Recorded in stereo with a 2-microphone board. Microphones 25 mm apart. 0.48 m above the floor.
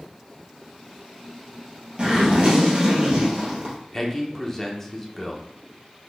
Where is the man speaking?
15° left (ahead or behind), 0.7 m.